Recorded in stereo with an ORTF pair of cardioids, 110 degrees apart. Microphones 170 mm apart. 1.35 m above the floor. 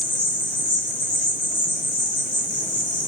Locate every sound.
0.0 s an insect: 25° left, 1.5 m